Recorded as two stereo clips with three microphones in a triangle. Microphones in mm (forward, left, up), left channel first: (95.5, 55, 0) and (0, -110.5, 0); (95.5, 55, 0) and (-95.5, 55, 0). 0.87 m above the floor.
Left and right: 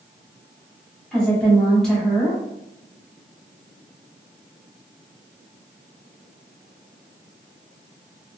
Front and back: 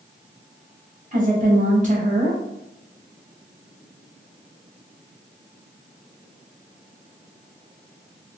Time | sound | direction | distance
1.1 | a woman speaking | 145° left | 1.3 m